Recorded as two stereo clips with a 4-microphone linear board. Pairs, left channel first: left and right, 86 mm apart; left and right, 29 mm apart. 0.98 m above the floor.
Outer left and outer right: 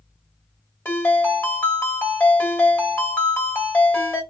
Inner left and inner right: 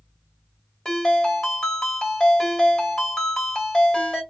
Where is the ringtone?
25° left (ahead or behind), 1.3 m.